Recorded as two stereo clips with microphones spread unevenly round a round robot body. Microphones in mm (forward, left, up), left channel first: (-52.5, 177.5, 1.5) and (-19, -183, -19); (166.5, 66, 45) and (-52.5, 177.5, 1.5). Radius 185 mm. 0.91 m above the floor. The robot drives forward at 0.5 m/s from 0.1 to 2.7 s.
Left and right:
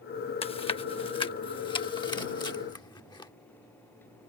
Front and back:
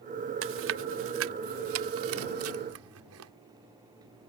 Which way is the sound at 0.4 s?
170° left.